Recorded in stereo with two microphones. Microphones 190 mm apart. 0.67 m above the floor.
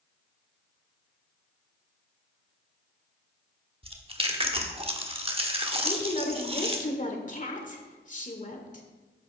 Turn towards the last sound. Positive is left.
turn(degrees=45)  # may be behind; listen again after turning